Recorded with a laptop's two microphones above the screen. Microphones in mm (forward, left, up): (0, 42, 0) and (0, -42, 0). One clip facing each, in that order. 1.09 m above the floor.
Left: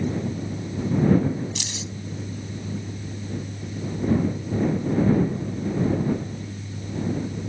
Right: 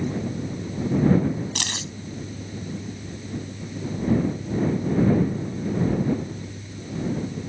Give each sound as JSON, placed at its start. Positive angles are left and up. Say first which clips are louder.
{"t": 0.0, "sound": "a fan", "louder": "even", "side_deg": 85}
{"t": 1.6, "sound": "keys jangling", "louder": "right 2 dB", "side_deg": -60}